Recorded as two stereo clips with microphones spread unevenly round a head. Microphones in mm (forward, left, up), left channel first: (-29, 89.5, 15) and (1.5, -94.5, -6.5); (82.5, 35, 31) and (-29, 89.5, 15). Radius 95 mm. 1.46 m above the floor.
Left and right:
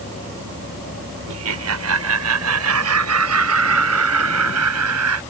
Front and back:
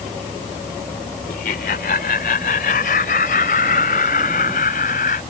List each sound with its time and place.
1.3 s laughter: 70° right; by 5.2 s 75° right